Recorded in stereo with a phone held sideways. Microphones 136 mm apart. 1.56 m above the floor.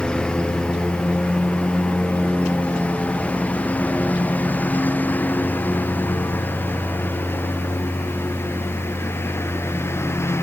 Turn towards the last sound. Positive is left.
turn(degrees=20)  # may be behind; listen again after turning